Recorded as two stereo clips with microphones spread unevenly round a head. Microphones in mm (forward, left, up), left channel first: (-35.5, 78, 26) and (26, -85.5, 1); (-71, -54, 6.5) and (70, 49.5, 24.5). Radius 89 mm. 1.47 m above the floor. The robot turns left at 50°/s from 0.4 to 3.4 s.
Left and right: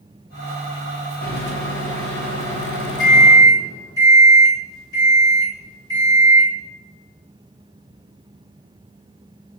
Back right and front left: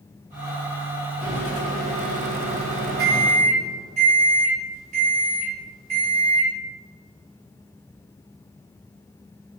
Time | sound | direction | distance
1.2 | a microwave | 115° left | 0.9 m